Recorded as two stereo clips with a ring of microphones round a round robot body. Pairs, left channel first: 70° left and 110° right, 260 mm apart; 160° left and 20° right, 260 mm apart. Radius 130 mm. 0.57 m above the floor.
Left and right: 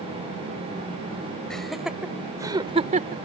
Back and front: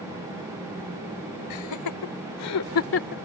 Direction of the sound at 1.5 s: 155° left.